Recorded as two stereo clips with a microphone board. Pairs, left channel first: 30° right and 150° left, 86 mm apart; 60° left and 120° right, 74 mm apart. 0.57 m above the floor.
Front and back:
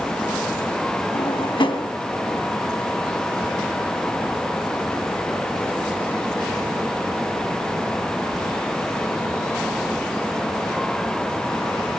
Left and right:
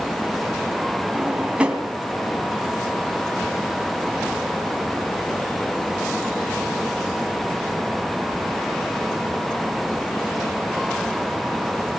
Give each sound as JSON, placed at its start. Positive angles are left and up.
{"t": 1.1, "sound": "a drawer", "azimuth_deg": -45, "distance_m": 2.5}